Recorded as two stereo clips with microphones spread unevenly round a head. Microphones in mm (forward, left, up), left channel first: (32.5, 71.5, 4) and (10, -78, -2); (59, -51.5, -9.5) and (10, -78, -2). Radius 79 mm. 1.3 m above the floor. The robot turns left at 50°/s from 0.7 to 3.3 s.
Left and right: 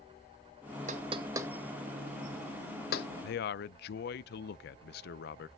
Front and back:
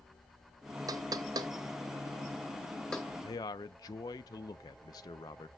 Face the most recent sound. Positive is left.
turn(degrees=65)